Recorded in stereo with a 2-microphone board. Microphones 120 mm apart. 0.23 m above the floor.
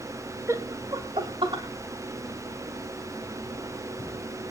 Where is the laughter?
25° right (ahead or behind), 1.0 m; by 1.6 s 45° right (ahead or behind), 1.6 m.